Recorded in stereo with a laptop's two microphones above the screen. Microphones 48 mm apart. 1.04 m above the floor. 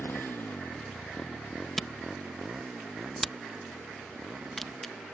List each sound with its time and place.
0.0 s a motorcycle: 60° left (ahead or behind); by 5.1 s 30° right (ahead or behind)
1.8 s a camera shutter: 5° left (ahead or behind)